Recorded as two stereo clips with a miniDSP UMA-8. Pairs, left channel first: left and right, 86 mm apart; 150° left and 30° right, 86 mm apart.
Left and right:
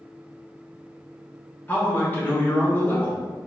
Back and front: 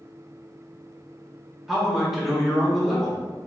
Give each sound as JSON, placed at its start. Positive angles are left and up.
{"t": 1.7, "sound": "a man speaking", "azimuth_deg": 50, "distance_m": 0.8}